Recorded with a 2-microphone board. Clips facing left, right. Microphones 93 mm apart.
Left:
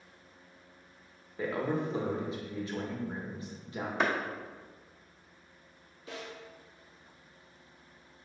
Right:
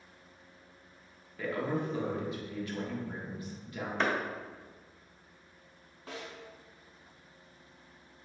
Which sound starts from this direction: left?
A man speaking, at 1.4 s.